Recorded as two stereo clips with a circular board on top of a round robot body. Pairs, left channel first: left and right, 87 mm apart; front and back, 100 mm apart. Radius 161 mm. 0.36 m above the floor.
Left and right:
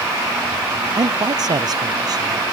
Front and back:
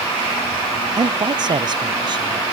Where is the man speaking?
135° right.